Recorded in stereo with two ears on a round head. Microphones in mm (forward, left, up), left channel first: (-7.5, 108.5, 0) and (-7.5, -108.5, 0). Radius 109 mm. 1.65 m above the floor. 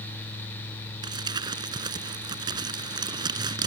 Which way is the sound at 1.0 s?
15° right (ahead or behind).